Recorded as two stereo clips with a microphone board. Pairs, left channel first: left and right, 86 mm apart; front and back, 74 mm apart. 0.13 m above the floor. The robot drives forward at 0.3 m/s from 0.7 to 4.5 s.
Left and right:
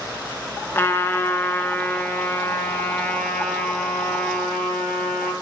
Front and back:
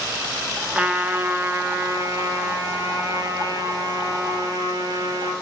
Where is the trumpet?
120° left, 0.6 m; by 5.3 s 165° left, 1.4 m.